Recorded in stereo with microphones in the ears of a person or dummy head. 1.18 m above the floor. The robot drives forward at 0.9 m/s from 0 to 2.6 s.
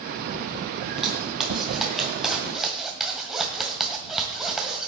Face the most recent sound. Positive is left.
turn(degrees=-5)  # may be behind; listen again after turning